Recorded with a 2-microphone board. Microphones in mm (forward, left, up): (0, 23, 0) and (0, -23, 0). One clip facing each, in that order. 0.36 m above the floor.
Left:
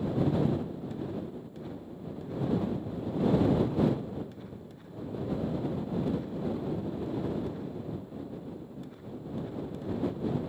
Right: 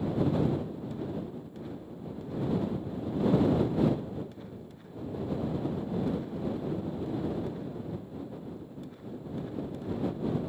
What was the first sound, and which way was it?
Only background noise.